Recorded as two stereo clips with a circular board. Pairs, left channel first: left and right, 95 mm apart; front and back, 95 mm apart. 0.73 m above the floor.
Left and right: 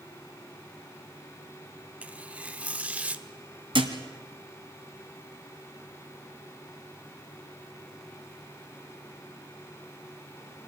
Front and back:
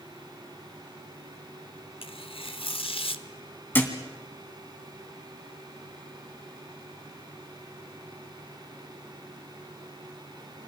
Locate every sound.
2.0 s tearing paper: 15° right, 0.9 m
3.7 s a thud: 70° right, 2 m